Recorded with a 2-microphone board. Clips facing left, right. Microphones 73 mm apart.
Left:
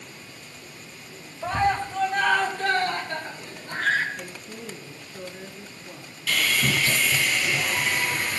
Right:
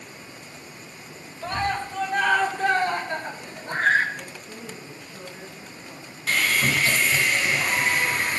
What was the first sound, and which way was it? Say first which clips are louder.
A scream: left 3 dB; 10° left (ahead or behind).